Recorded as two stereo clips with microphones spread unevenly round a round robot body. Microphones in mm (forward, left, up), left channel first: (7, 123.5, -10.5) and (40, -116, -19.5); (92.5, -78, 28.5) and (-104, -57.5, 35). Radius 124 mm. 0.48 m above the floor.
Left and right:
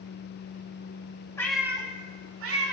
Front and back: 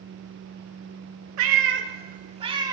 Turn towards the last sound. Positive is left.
turn(degrees=-115)